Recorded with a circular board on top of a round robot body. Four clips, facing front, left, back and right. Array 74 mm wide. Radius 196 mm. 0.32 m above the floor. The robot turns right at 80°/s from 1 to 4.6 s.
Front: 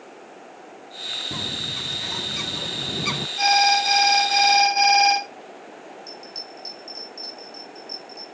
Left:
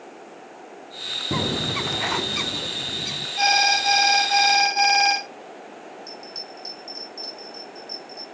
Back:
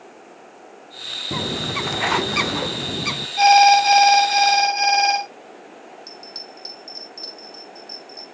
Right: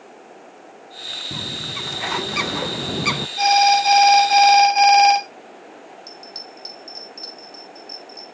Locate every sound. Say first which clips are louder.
1.3 s a bird: left 8 dB, back 10 dB; 120° left, 0.5 m; by 3.3 s 85° right, 0.5 m
3.4 s an alarm: right 6 dB, back 8 dB; 175° left, 5.5 m; by 5.2 s 85° right, 5.5 m
6.1 s a bell: left 1 dB, even; 125° right, 5 m